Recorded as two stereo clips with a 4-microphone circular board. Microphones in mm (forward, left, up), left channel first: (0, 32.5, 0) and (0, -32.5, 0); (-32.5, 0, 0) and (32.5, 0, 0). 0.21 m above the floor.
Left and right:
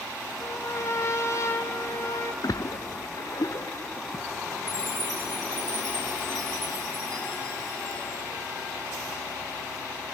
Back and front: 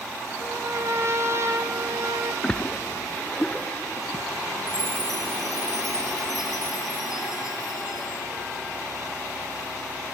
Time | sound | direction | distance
0.4 | a trumpet | 45° left | 2 m
2.4 | a splash | 105° left | 0.5 m
4.7 | a chime | 170° left | 8 m